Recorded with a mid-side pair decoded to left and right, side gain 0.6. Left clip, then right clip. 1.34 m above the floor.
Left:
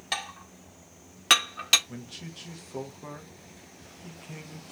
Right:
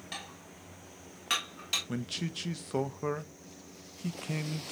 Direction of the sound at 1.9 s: 45° right.